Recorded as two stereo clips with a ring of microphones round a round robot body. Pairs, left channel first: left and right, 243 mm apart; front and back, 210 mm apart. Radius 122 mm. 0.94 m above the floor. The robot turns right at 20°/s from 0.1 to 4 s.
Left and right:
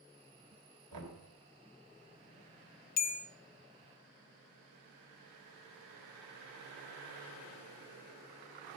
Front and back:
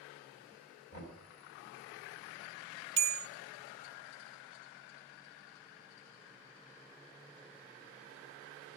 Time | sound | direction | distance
0.9 | knocking | 65° right | 3 m
3.0 | a bell | 145° left | 0.6 m